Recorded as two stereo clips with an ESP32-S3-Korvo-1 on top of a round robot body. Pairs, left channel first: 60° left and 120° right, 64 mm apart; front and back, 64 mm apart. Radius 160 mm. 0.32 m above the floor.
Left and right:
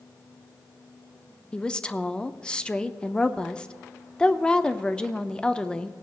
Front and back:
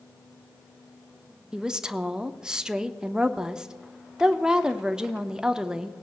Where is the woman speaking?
115° left, 0.9 m.